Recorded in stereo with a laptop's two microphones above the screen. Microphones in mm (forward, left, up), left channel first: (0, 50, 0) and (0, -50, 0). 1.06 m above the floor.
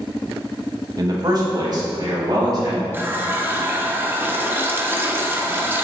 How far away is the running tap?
About 0.6 m.